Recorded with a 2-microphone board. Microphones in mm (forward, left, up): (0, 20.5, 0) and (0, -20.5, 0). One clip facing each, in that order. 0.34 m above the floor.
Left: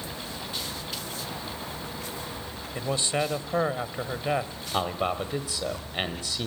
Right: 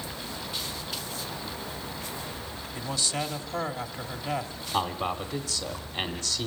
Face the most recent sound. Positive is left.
turn(degrees=20)  # may be behind; listen again after turning